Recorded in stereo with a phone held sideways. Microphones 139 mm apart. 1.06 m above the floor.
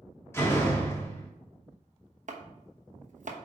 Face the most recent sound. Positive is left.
turn(degrees=-60)  # may be behind; listen again after turning